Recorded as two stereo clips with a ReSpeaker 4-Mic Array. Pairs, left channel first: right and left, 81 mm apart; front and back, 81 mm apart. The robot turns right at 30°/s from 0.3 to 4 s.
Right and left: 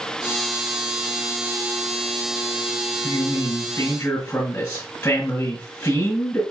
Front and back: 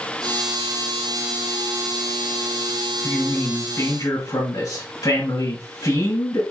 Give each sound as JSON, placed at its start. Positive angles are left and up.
{"t": 3.0, "sound": "a man speaking", "azimuth_deg": -60, "distance_m": 3.0}